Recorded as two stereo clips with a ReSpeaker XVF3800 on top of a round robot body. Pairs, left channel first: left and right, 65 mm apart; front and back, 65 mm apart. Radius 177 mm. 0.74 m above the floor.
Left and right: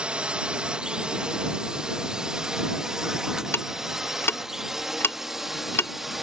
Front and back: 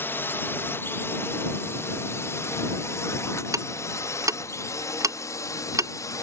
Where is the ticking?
145° left.